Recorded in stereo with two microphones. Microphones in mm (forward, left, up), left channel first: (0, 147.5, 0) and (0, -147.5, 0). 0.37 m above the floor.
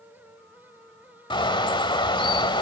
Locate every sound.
1.3 s a bird: 15° left (ahead or behind), 1.2 m